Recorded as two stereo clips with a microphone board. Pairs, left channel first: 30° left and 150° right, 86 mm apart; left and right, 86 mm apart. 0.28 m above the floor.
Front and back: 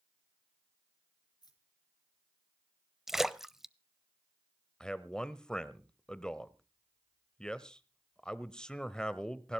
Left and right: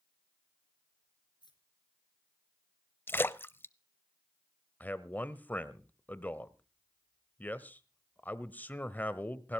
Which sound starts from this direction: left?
A man speaking, at 4.8 s.